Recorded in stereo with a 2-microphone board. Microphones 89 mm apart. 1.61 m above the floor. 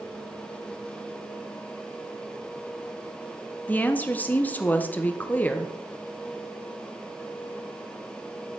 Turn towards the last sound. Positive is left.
turn(degrees=20)  # may be behind; listen again after turning